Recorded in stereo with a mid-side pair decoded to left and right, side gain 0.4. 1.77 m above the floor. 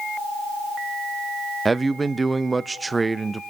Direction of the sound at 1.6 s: 30° right.